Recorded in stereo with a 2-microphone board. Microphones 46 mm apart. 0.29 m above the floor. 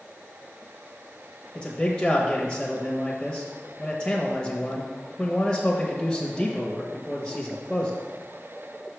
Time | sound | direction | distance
1.6 | a man speaking | 20° left (ahead or behind) | 0.9 m